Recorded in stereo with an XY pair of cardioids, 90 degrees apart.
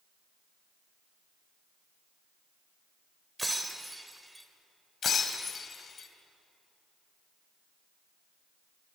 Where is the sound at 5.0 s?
50° left, 3 m.